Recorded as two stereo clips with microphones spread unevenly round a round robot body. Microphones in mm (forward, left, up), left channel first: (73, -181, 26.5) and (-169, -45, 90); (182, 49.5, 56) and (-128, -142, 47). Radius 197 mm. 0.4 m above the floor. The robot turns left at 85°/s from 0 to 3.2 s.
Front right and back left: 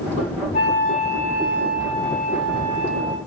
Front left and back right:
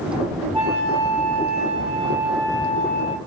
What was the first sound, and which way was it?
A flute, 70° right.